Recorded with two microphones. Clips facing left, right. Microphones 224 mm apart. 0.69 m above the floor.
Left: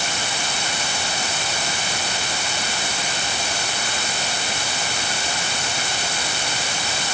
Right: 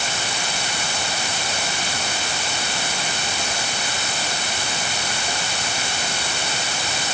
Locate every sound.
Only background noise.